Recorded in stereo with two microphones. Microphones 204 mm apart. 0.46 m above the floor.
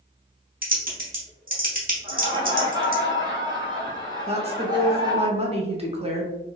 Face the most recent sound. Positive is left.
turn(degrees=-30)  # may be behind; listen again after turning